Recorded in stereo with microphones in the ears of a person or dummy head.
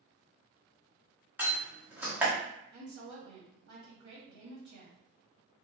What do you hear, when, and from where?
1.4 s a door slam: 5° right (ahead or behind), 1.2 m
2.7 s a woman speaking: 55° right (ahead or behind), 1.7 m